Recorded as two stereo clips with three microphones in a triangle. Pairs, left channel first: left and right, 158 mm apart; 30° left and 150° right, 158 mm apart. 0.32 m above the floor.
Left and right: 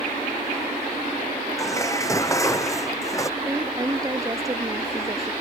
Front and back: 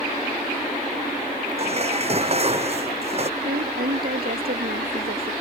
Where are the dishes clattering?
160° left.